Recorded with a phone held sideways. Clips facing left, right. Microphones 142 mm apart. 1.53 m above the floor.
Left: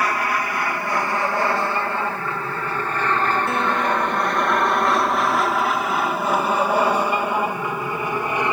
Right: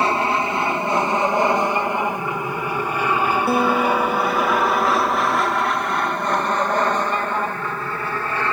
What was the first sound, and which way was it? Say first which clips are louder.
An aircraft: right 3 dB; 25° right (ahead or behind).